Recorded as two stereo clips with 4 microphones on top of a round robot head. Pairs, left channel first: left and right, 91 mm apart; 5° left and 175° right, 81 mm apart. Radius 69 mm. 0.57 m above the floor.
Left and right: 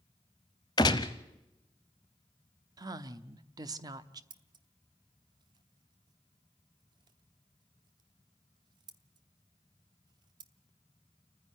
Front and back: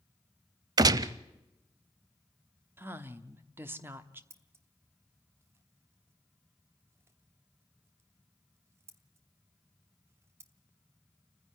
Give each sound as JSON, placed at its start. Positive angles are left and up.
{"t": 0.8, "sound": "a gunshot", "azimuth_deg": 150, "distance_m": 0.6}
{"t": 2.8, "sound": "a woman speaking", "azimuth_deg": -120, "distance_m": 0.9}
{"t": 4.3, "sound": "scissors", "azimuth_deg": -120, "distance_m": 0.9}